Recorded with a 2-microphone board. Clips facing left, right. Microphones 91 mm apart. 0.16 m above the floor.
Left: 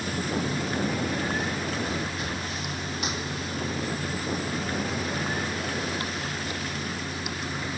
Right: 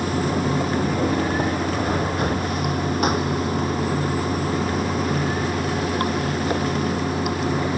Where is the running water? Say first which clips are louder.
Right 7 dB; 55° right (ahead or behind).